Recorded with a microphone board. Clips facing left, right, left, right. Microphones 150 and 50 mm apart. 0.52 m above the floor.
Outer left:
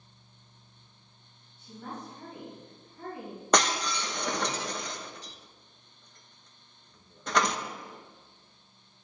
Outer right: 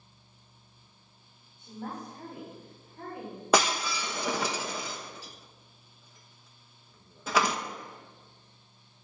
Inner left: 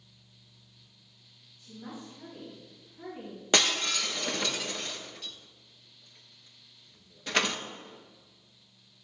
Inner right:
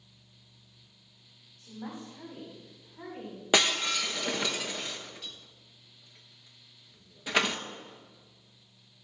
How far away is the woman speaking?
About 3.5 m.